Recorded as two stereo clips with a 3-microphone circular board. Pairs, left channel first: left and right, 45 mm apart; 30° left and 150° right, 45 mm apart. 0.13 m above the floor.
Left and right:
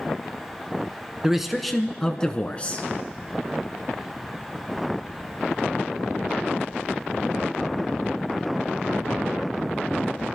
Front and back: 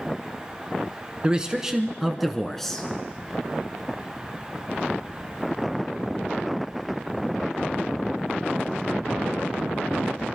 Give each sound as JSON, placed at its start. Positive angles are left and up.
{"t": 1.2, "sound": "a man speaking", "azimuth_deg": -150, "distance_m": 1.2}